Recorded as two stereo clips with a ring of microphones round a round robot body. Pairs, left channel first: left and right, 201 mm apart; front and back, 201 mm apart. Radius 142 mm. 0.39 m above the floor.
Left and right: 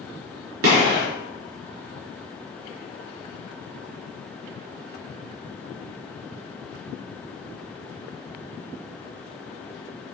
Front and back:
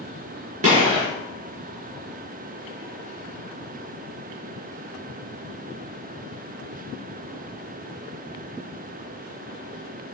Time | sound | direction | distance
0.6 | a gunshot | 115° right | 1.4 m